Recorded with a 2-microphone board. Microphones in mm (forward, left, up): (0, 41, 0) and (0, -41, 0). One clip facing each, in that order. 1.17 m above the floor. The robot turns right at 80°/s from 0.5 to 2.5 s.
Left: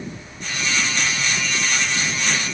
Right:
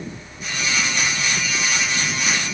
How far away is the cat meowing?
No cat meowing in this recording.